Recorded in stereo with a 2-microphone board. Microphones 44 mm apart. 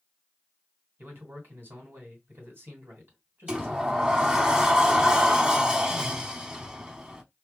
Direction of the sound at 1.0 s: 55° right (ahead or behind).